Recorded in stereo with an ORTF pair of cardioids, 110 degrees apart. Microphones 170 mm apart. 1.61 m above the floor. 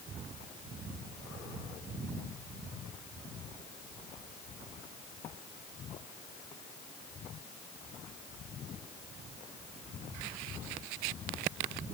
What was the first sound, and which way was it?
Only background noise.